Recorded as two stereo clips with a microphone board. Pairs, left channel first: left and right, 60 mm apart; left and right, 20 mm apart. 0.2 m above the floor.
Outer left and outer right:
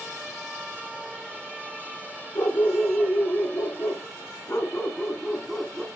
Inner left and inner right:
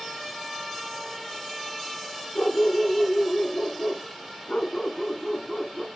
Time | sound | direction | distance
2.4 | a dog barking | 75° left (ahead or behind) | 1.8 m